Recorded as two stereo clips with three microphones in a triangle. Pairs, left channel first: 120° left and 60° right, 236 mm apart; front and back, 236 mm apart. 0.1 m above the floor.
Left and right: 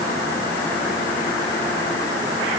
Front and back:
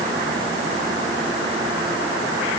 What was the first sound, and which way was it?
Only background noise.